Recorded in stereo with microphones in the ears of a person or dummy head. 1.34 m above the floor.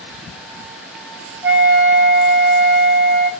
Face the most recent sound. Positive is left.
turn(degrees=-15)  # may be behind; listen again after turning